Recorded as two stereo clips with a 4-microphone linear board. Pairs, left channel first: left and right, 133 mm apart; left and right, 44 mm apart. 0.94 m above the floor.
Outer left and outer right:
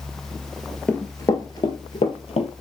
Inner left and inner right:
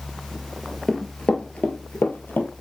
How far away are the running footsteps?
About 1.0 m.